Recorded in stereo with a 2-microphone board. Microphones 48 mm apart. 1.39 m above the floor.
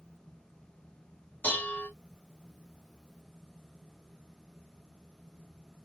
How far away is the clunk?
I don't hear a clunk.